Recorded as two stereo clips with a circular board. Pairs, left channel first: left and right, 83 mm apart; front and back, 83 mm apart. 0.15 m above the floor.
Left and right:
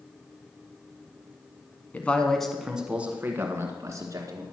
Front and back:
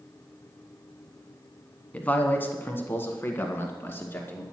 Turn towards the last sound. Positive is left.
turn(degrees=-55)